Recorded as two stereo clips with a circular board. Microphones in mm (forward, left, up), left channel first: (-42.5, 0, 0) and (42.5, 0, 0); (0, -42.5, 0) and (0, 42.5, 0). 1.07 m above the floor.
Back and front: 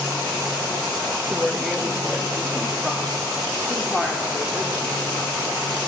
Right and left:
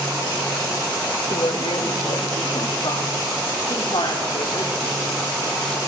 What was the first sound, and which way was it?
A woman speaking, 85° right.